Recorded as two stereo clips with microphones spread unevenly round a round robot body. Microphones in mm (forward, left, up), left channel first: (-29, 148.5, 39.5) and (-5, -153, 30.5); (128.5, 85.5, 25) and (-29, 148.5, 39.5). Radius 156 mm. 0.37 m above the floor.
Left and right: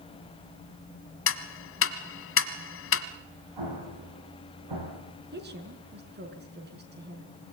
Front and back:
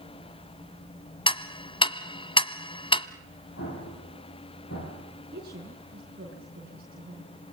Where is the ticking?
40° left, 1.4 m.